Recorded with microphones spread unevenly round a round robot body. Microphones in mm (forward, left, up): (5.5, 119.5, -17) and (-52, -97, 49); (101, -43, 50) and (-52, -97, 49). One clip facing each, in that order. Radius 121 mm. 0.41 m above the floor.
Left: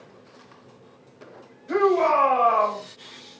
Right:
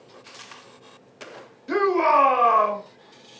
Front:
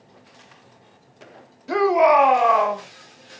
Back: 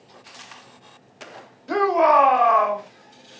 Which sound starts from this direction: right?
A shout, at 1.7 s.